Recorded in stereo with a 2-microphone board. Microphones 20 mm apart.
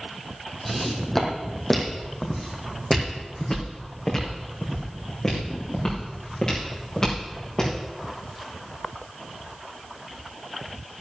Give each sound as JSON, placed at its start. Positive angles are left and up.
{"t": 0.7, "sound": "footsteps", "side_deg": 10, "distance_m": 2.0}